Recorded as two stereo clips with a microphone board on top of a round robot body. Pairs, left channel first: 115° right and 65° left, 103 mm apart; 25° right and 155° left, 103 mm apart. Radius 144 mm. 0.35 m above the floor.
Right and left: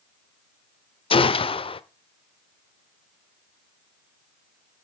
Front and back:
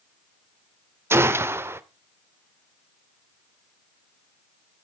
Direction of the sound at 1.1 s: 135° right.